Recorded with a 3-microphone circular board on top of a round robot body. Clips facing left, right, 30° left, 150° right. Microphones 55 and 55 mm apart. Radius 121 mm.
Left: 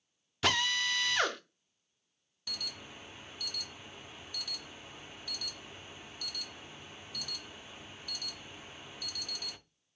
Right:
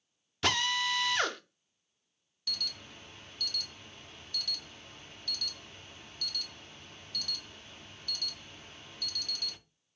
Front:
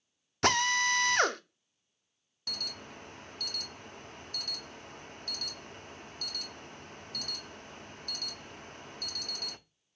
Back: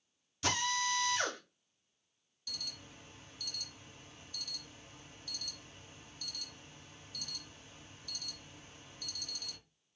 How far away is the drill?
About 0.6 m.